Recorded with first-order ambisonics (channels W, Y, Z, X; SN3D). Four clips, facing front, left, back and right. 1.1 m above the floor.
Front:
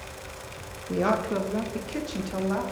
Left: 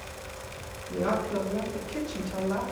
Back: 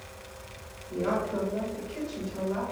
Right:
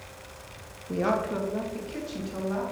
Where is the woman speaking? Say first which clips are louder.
Right 1 dB, front 4 dB; 30° right, 0.9 m; by 2.6 s 5° left, 1.5 m.